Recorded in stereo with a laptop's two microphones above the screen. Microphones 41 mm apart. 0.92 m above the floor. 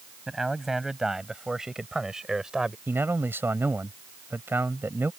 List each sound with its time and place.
0.3 s a man speaking: 10° right (ahead or behind); by 2.8 s 15° right (ahead or behind)
2.9 s a man speaking: 60° right (ahead or behind)